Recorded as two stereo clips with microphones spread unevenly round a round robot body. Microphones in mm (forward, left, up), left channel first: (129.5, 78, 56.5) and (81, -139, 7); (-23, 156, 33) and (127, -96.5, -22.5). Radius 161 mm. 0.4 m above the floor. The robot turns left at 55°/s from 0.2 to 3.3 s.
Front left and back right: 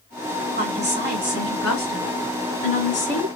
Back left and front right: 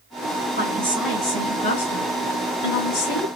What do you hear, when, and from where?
0.6 s a woman speaking: 115° right, 1.9 m; by 3.3 s 100° left, 1.9 m